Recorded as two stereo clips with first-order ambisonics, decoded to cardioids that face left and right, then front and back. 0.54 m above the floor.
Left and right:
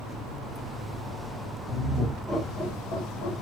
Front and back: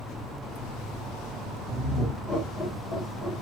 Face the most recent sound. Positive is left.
turn(degrees=80)